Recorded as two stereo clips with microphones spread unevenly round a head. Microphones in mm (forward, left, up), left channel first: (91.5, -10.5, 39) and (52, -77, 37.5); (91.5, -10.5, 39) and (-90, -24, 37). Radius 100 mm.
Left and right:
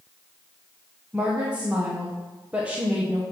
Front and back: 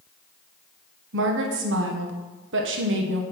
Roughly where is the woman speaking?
Behind.